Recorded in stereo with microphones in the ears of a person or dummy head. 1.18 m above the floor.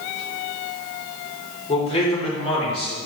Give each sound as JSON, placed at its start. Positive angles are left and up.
{"t": 1.7, "sound": "a man speaking", "side_deg": 35, "distance_m": 3.5}